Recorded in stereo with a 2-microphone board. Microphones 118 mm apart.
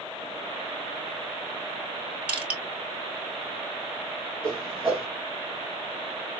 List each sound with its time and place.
2.3 s crushing: 10° right (ahead or behind), 1.2 m
4.4 s a whoosh: 15° right (ahead or behind), 1.6 m